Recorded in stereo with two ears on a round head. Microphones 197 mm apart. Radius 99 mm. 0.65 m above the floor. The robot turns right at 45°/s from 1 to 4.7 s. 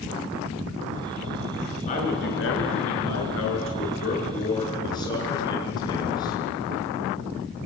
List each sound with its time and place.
1.9 s a man speaking: 30° left, 7.5 m; by 6.4 s 160° left, 7.5 m